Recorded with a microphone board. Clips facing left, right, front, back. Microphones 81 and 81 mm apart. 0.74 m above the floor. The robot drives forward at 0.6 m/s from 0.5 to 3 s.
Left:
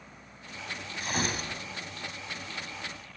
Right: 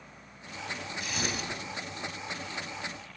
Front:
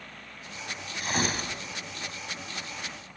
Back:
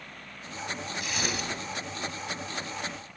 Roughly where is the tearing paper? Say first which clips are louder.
Left 4 dB, front 5 dB; ahead left.